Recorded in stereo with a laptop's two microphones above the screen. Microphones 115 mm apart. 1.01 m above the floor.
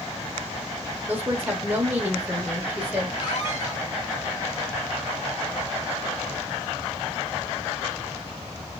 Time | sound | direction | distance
1.1 | a woman speaking | 15° right (ahead or behind) | 1.1 m
3.2 | a squeak | 40° left (ahead or behind) | 1.6 m